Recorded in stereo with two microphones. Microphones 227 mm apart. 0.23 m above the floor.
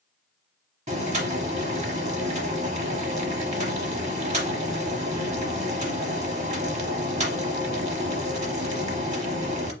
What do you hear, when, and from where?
0.9 s boiling: 30° right (ahead or behind), 0.8 m